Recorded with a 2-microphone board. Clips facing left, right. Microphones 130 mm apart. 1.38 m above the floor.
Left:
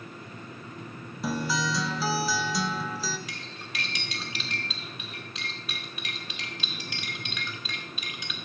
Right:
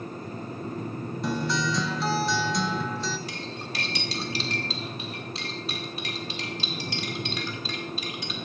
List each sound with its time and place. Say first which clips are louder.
1.2 s a guitar: right 1 dB; 5° left (ahead or behind), 0.8 m
3.3 s cutlery clinking: right 6 dB; 35° right (ahead or behind), 1.6 m